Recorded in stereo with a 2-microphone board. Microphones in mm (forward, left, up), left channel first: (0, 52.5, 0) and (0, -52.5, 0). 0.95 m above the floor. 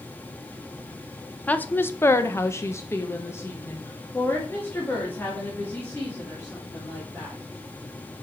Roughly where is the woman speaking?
Centre.